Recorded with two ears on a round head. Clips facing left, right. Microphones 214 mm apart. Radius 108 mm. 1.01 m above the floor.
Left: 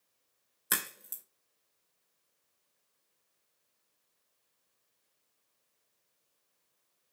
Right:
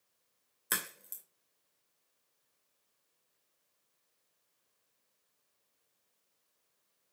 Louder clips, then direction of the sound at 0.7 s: Left 2 dB; 5° left (ahead or behind).